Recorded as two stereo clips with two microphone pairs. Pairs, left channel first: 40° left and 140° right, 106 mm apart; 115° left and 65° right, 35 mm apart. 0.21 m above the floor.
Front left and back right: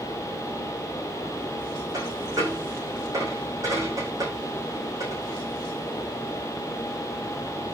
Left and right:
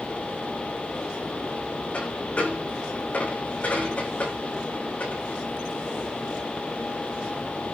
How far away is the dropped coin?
About 5.5 m.